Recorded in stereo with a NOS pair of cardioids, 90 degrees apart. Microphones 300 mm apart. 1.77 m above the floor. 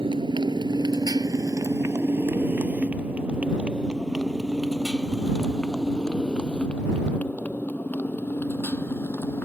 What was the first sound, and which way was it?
A motorcycle, 15° right.